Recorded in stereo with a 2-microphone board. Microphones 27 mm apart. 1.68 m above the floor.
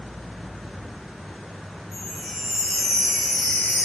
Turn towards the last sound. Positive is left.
turn(degrees=-10)  # may be behind; listen again after turning